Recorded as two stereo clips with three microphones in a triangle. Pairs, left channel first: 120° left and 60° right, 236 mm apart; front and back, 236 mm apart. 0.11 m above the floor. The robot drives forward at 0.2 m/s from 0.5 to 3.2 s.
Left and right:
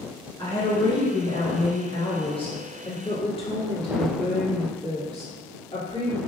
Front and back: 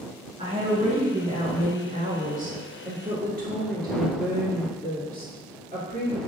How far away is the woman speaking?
About 1.5 m.